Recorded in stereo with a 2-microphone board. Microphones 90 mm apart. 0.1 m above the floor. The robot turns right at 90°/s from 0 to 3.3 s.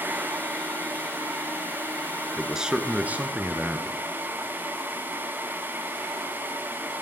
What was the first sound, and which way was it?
A man speaking, centre (ahead or behind).